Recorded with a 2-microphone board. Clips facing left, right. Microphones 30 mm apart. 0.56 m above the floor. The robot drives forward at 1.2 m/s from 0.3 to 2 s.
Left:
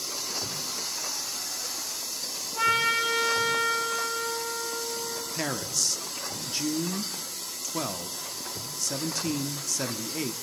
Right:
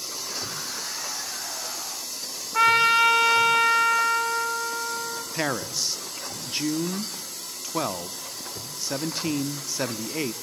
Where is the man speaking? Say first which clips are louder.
Right 4 dB; 25° right (ahead or behind), 0.7 m.